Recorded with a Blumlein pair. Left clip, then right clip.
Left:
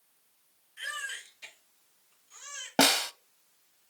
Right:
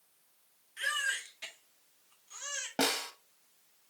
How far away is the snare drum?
About 0.6 m.